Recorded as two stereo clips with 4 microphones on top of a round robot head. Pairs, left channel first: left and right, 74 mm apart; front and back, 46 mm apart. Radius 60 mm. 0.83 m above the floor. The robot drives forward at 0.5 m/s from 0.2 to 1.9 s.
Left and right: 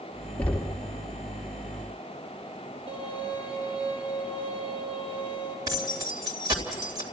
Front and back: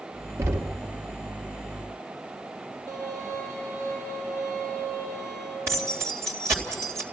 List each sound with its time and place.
0.4 s knocking: 165° left, 1.0 m; by 0.8 s 170° left, 1.2 m
2.9 s a violin: 90° right, 6.5 m
5.7 s keys jangling: 140° right, 2.5 m